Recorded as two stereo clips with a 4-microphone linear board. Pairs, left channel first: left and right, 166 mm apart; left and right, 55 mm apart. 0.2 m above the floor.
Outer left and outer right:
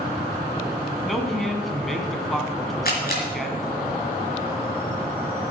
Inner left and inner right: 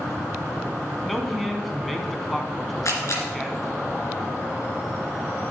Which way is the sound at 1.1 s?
Centre (ahead or behind).